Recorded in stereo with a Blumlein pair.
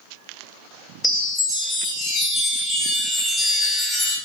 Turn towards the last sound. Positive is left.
turn(degrees=15)